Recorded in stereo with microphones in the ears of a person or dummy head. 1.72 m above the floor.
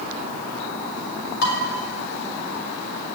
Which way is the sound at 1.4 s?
55° left (ahead or behind).